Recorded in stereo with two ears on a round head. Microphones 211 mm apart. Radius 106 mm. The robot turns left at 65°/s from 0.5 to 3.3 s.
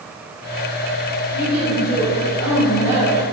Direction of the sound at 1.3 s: 165° right.